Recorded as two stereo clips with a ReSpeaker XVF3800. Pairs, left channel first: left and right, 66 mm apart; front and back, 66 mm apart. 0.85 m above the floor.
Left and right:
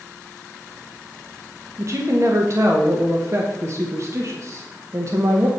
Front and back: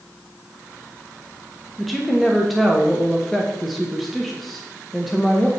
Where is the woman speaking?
90° right, 1.1 m.